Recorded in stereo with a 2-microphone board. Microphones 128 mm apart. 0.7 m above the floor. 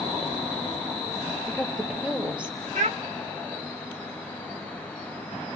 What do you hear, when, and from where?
1.4 s a woman speaking: 5° right (ahead or behind), 2.5 m; by 2.6 s 10° right (ahead or behind), 4 m
2.8 s a child speaking: 70° right (ahead or behind), 1.1 m